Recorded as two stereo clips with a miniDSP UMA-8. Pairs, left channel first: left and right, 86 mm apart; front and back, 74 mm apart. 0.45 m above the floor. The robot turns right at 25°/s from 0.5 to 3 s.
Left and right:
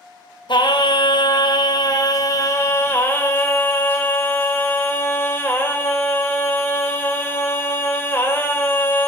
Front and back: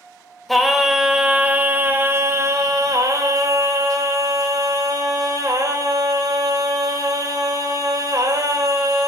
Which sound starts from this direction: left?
Singing, at 0.5 s.